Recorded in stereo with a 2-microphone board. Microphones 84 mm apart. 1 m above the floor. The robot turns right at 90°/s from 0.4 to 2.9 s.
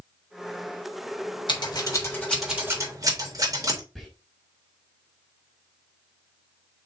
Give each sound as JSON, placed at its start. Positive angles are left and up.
{"t": 1.5, "sound": "scissors", "side_deg": 80, "distance_m": 3.5}
{"t": 4.0, "sound": "whispering", "side_deg": 0, "distance_m": 3.5}